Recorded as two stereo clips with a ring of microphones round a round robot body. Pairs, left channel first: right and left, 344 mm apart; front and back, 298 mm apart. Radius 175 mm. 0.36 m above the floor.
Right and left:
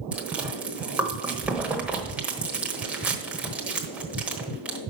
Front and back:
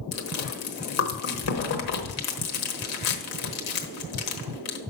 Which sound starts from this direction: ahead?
Chewing, at 0.1 s.